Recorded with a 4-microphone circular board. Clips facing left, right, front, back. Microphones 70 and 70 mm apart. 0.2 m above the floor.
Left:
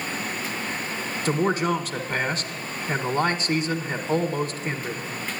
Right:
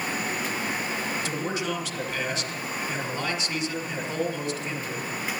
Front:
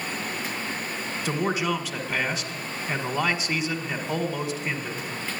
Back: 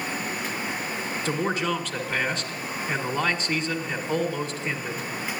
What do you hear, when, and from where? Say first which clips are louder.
1.2 s a man speaking: left 6 dB, front 1 dB; 80° left, 1.5 m